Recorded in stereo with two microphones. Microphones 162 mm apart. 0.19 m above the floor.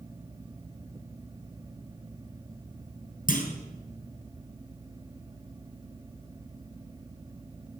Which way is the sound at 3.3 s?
60° left (ahead or behind).